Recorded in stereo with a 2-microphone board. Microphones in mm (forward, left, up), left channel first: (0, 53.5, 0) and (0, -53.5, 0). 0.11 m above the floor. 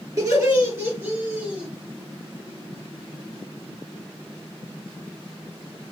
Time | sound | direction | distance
0.2 | laughter | 30° right (ahead or behind) | 2 m